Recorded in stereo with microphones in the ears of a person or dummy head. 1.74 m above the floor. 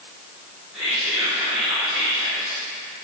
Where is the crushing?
No crushing in this recording.